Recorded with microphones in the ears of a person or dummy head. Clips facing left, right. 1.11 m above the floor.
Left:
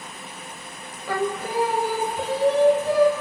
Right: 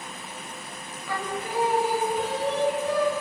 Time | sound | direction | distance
1.1 | singing | 35° left (ahead or behind) | 1.5 m